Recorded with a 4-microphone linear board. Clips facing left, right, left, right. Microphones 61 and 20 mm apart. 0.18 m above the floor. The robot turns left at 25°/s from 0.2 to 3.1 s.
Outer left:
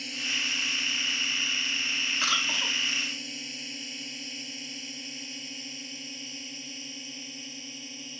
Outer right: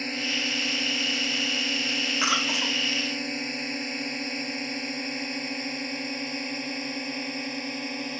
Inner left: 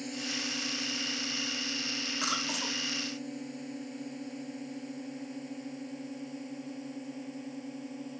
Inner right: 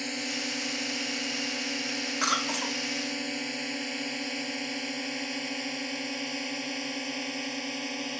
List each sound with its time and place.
0.0 s a drone: 50° right (ahead or behind); by 8.2 s 65° right (ahead or behind)
2.2 s a cough: 20° right (ahead or behind); by 2.8 s 10° right (ahead or behind)